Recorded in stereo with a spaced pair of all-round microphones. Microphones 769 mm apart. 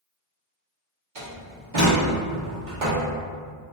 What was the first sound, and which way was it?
A door slam, 75° right (ahead or behind).